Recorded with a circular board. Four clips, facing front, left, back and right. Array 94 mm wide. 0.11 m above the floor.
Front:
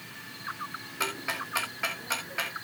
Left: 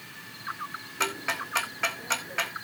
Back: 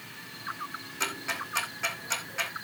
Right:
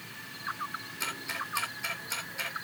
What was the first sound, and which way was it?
Ticking, 75° left.